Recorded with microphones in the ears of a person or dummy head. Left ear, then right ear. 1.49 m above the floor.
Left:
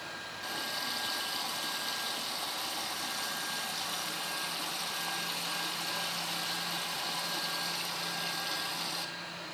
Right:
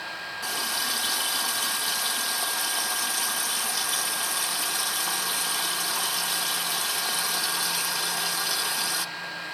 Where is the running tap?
55° right (ahead or behind), 0.8 m.